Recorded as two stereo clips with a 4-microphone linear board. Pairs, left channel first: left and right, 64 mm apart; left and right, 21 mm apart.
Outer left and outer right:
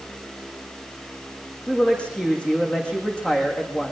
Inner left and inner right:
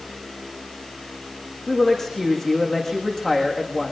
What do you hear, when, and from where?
1.7 s a woman speaking: 15° left (ahead or behind), 7 m